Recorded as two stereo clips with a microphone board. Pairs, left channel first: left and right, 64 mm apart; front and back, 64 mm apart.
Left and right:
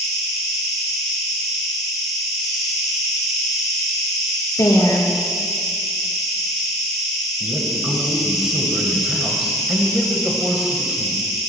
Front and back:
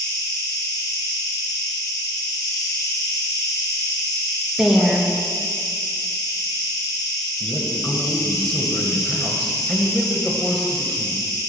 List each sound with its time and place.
0.0 s an insect: straight ahead, 5.5 m
4.6 s a woman speaking: 100° left, 3 m
7.4 s a man speaking: 35° right, 1.6 m